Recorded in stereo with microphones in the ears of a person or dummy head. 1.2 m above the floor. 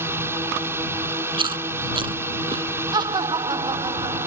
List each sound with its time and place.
0.0 s a drone: 10° right (ahead or behind)
1.3 s chewing: 25° right (ahead or behind)
2.9 s laughter: 25° right (ahead or behind)